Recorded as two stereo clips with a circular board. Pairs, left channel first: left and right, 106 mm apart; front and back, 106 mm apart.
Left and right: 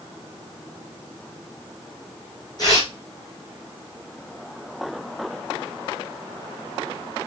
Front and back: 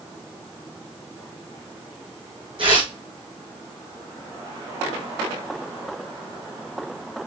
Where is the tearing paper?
145° left, 3 m.